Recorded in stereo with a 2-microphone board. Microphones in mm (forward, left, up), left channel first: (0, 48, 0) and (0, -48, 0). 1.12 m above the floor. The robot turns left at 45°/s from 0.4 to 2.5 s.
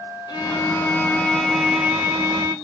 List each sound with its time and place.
0.3 s a violin: 55° left, 0.6 m; by 2.5 s 40° right, 0.6 m